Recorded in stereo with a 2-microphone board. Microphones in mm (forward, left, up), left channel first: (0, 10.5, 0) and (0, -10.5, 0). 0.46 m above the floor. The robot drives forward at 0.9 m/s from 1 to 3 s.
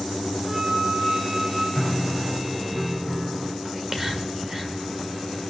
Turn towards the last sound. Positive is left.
turn(degrees=-20)  # may be behind; listen again after turning